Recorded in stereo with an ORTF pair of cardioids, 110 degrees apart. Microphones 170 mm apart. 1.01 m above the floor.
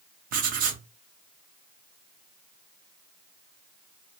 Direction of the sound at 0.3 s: 55° right.